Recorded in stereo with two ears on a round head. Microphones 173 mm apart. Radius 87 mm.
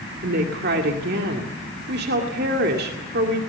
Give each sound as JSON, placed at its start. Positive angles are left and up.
{"t": 0.2, "sound": "a woman speaking", "side_deg": -55, "distance_m": 2.0}